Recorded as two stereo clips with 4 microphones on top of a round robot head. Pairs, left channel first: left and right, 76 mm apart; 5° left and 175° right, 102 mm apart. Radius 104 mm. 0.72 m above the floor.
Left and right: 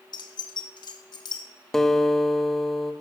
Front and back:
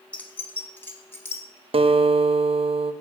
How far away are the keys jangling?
About 1.4 m.